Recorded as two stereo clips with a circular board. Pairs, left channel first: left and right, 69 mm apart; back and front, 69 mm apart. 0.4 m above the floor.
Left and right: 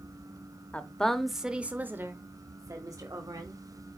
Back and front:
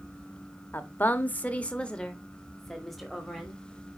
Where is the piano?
I don't hear a piano.